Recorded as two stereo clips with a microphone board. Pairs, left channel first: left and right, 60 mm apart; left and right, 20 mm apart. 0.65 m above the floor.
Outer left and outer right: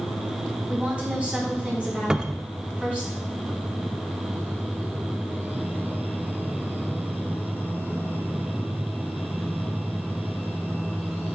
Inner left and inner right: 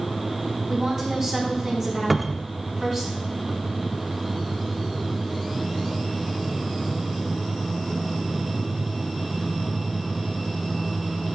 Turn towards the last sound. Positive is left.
turn(degrees=-15)  # may be behind; listen again after turning